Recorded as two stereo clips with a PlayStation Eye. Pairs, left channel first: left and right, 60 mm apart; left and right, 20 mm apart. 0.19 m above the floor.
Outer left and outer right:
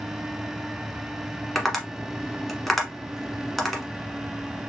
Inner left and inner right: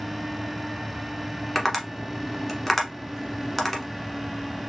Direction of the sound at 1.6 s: 5° left (ahead or behind).